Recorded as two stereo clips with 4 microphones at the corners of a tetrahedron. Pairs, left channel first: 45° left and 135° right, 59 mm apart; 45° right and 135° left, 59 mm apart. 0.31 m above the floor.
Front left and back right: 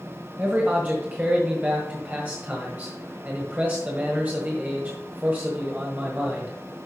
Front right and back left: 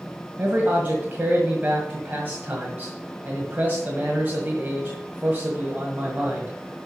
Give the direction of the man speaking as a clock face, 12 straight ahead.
6 o'clock.